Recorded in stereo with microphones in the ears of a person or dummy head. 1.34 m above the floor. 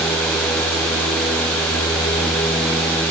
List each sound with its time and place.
Only background noise.